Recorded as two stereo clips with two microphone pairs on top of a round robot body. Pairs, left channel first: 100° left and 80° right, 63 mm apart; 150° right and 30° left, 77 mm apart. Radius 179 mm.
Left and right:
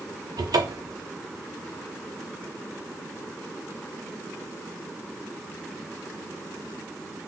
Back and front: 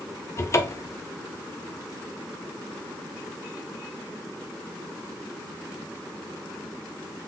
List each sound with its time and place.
0.4 s a cupboard door: 100° right, 0.7 m